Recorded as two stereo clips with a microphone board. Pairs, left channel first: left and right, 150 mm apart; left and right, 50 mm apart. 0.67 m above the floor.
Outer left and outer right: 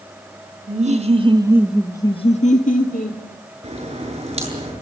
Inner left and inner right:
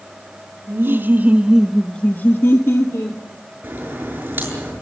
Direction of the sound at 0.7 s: 50° right (ahead or behind).